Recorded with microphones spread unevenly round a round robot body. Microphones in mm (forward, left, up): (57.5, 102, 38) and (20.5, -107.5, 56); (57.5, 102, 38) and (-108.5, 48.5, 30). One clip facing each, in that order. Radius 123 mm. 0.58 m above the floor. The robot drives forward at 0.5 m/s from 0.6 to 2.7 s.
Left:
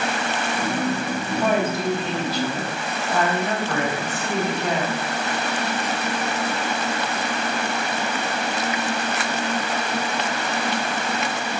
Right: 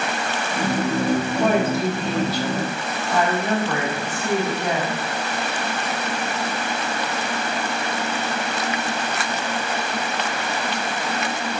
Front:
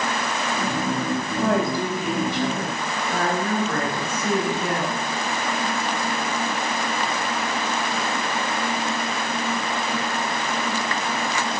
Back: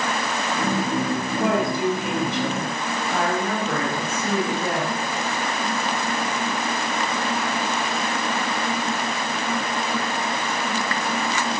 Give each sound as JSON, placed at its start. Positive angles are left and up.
{"t": 1.4, "sound": "a woman speaking", "azimuth_deg": -140, "distance_m": 3.0}